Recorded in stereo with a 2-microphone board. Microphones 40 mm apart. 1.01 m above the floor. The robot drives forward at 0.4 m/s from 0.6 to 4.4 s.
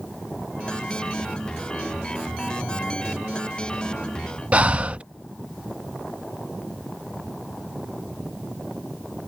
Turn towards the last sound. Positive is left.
turn(degrees=-35)  # may be behind; listen again after turning